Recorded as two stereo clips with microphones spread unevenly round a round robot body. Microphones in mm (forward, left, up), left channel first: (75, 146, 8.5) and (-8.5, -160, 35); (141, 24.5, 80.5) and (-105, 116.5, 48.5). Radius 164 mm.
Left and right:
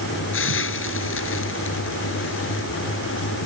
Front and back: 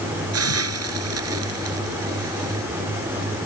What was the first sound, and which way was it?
A hiss, 130° left.